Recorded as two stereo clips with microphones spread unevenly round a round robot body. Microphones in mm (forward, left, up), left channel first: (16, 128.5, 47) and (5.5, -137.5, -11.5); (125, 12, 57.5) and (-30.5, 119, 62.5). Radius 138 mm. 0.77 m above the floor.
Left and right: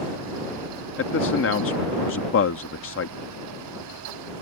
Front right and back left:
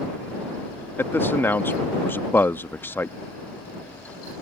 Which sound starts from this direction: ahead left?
A man speaking, at 1.0 s.